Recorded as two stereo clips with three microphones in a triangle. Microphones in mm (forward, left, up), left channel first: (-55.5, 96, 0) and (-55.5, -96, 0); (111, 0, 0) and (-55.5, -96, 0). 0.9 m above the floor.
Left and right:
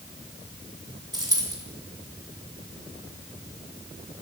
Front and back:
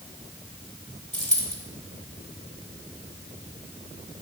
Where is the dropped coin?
20° right, 1.7 m.